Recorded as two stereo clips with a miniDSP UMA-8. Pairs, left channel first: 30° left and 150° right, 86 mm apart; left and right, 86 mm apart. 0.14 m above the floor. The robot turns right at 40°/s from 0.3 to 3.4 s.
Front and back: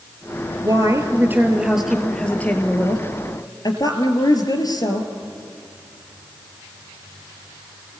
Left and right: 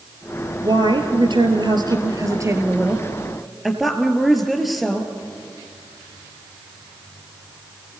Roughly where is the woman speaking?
Right.